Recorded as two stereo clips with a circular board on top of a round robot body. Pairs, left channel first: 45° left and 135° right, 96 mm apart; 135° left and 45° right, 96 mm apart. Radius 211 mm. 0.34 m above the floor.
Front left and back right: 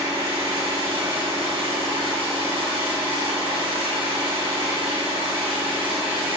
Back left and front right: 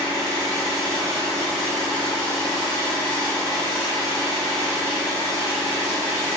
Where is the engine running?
110° right, 1.5 m.